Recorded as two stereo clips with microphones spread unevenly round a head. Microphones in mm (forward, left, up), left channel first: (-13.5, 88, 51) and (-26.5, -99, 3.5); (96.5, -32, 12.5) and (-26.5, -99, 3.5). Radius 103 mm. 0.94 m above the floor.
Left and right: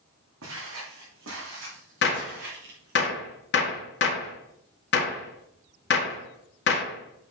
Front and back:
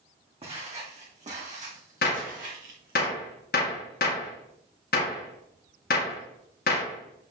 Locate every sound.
0.4 s footsteps: 105° right, 3.5 m; by 3.0 s 130° right, 3.5 m
2.0 s a gunshot: 50° left, 1.7 m